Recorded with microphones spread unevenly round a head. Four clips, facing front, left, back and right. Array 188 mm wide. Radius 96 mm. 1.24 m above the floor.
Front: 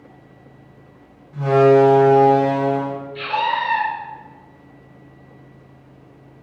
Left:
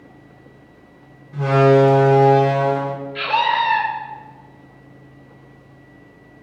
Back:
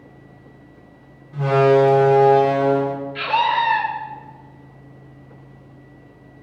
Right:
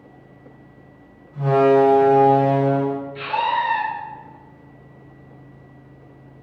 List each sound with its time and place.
1.3 s a door slam: 100° left, 5 m
3.1 s a scream: 130° left, 3.5 m